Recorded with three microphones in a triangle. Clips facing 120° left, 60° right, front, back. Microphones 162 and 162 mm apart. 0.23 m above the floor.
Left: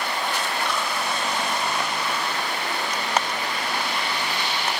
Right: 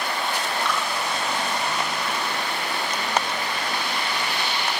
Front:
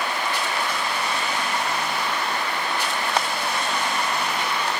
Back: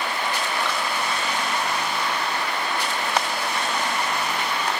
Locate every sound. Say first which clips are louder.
0.7 s dripping: right 3 dB, back 1 dB; 165° left, 9 m